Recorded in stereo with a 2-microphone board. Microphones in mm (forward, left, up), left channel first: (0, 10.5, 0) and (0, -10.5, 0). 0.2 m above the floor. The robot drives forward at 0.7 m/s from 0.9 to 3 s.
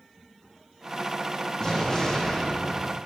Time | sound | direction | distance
1.6 | an explosion | 20° left (ahead or behind) | 5.5 m